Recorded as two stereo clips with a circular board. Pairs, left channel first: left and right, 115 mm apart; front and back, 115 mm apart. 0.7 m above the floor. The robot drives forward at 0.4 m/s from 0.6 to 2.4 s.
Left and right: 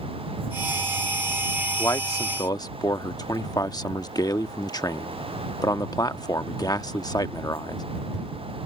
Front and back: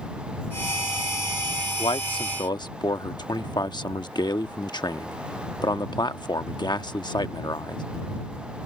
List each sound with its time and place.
1.8 s a man speaking: 35° left; by 7.8 s 40° left